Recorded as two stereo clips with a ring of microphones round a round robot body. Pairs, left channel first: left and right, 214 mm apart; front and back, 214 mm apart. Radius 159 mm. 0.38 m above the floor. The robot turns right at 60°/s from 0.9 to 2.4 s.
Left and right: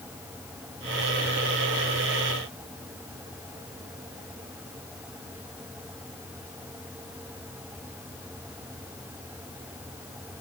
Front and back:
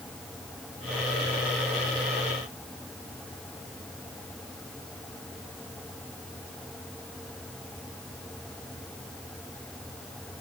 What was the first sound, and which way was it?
Only background noise.